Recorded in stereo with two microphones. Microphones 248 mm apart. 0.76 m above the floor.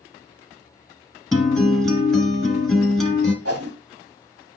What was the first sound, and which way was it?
A guitar, centre (ahead or behind).